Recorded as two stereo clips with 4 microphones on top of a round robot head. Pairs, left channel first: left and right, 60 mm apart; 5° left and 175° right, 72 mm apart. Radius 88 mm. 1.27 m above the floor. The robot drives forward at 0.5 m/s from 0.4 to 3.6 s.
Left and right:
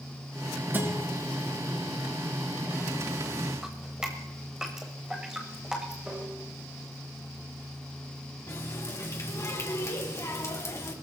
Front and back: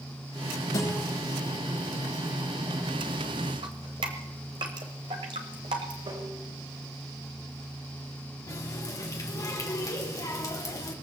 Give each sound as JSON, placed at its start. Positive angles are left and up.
{"t": 0.7, "sound": "a guitar", "azimuth_deg": -35, "distance_m": 8.0}
{"t": 3.6, "sound": "dripping", "azimuth_deg": -170, "distance_m": 1.4}
{"t": 6.0, "sound": "tapping", "azimuth_deg": -170, "distance_m": 5.0}
{"t": 8.5, "sound": "a running tap", "azimuth_deg": 50, "distance_m": 2.5}